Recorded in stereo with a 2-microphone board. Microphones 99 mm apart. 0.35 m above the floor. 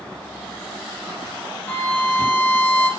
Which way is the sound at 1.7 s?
20° left (ahead or behind).